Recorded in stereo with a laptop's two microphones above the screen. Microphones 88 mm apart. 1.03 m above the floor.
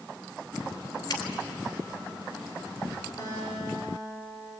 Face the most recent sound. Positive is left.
turn(degrees=40)  # may be behind; listen again after turning